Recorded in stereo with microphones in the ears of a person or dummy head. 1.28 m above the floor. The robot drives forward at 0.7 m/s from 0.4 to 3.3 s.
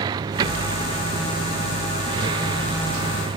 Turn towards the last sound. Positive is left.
turn(degrees=-35)  # may be behind; listen again after turning